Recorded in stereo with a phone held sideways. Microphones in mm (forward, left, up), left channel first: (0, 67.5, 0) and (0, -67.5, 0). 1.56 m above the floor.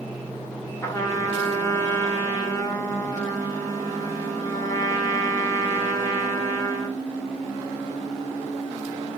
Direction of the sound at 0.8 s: 20° left (ahead or behind).